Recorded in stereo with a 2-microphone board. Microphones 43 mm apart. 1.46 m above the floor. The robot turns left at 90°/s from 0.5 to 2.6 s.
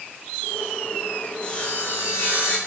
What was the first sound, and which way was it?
Sawing, 155° left.